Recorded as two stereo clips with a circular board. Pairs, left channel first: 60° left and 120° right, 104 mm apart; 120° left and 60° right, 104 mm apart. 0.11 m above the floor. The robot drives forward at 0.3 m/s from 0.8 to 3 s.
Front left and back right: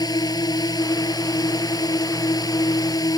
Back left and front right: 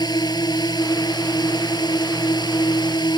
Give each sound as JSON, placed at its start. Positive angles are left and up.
{"t": 0.0, "sound": "a drone", "azimuth_deg": 95}